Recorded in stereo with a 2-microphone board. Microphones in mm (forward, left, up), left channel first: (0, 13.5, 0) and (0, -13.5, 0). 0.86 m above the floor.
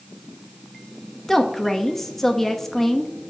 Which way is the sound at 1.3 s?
10° left (ahead or behind).